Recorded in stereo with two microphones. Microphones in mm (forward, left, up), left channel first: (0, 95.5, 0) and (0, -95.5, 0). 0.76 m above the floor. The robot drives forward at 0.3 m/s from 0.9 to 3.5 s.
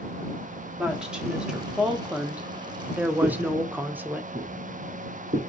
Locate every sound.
0.8 s a woman speaking: 5° right (ahead or behind), 1.1 m; by 4.2 s 10° right (ahead or behind), 0.5 m
3.2 s footsteps: 50° right (ahead or behind), 1.1 m; by 5.4 s 65° right (ahead or behind), 2.5 m